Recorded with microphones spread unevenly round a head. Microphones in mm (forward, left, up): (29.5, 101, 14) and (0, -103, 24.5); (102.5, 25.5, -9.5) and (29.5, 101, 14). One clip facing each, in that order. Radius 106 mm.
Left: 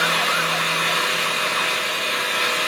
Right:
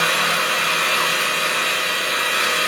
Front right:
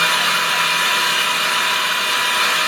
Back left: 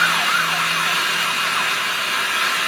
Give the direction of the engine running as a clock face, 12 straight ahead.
1 o'clock.